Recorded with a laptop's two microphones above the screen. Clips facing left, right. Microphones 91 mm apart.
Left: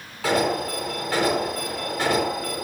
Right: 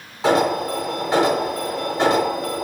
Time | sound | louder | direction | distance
0.2 | an alarm | right 4 dB | 25° right (ahead or behind) | 4.5 m